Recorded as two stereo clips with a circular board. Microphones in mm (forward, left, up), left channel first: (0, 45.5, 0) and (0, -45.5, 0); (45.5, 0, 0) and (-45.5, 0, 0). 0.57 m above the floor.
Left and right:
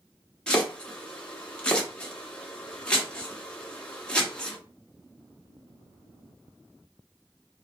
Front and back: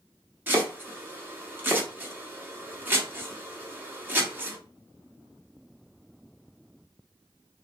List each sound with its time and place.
0.5 s chopping: 155° left, 0.8 m